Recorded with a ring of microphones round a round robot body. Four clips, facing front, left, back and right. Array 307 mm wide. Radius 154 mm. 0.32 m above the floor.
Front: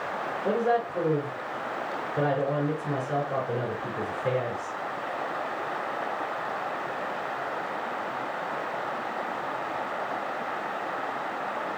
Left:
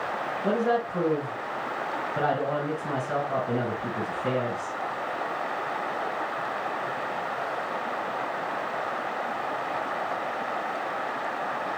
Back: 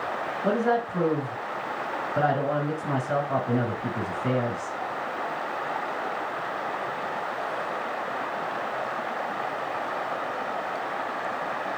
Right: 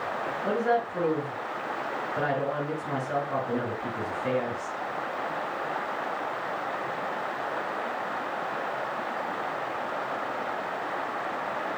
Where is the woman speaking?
160° left, 4 m.